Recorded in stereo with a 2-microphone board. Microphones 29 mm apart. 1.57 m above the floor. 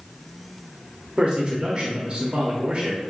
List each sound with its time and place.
1.2 s a man speaking: 45° right (ahead or behind), 0.9 m